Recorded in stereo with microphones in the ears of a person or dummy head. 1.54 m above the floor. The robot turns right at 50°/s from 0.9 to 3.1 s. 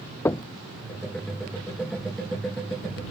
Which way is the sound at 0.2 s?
10° left (ahead or behind).